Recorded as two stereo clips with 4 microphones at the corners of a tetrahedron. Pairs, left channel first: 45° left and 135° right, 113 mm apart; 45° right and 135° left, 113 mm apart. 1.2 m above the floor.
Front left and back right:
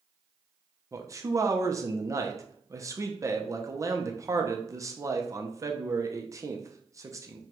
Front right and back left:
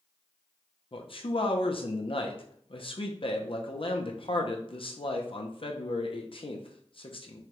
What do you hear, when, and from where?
0.9 s a man speaking: 75° right, 0.6 m